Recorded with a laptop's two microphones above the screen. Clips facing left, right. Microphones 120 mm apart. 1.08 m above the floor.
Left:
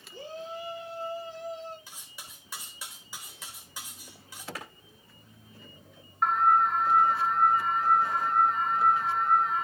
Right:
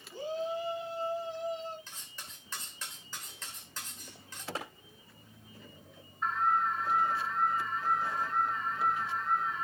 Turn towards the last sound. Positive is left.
turn(degrees=80)